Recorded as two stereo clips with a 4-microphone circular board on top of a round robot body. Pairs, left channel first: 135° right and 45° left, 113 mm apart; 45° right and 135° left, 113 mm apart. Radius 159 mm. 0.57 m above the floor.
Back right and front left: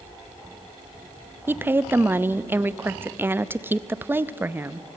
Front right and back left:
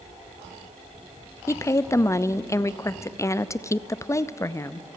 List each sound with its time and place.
1.5 s a woman speaking: 10° right, 0.8 m